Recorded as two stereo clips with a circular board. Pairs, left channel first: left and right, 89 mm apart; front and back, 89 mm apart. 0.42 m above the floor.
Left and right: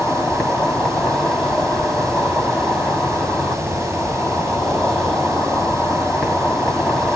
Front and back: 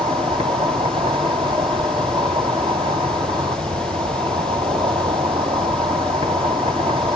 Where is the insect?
175° left, 2.5 m.